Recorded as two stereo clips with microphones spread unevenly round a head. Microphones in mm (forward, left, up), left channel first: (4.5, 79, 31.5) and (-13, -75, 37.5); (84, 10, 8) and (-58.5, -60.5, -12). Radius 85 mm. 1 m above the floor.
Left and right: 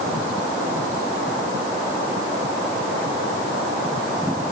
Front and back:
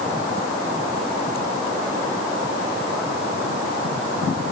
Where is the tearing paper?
No tearing paper in this recording.